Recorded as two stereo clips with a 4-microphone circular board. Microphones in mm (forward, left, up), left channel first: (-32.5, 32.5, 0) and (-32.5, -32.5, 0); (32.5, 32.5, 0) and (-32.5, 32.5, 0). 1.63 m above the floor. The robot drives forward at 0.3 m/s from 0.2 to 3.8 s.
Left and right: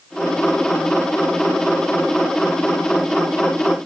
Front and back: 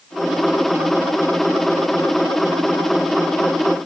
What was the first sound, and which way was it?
Only background noise.